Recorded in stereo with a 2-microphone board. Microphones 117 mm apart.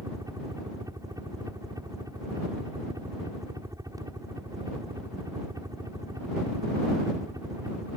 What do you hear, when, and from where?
0.0 s a helicopter: 30° right (ahead or behind)